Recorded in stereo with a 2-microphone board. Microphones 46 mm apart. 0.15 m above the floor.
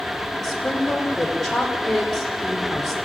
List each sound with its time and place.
0.4 s a woman speaking: 10° left (ahead or behind), 6 m